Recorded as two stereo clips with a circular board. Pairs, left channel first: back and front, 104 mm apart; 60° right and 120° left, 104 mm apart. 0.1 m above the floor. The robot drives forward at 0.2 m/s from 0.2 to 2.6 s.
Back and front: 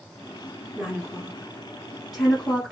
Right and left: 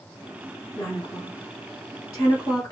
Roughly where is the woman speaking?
Ahead right.